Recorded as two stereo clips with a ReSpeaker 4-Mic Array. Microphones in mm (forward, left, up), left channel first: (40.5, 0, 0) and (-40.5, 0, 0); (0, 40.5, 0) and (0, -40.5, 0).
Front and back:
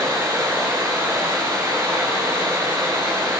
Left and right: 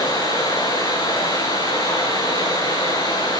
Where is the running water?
125° left, 8 m.